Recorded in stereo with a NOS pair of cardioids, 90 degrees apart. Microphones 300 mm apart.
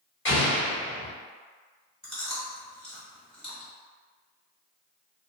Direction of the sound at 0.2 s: 40° left.